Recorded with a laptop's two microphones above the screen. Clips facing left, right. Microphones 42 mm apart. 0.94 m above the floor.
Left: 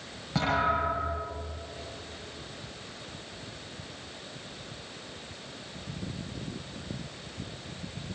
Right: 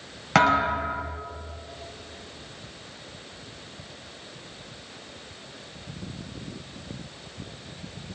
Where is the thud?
75° right (ahead or behind), 7.5 m.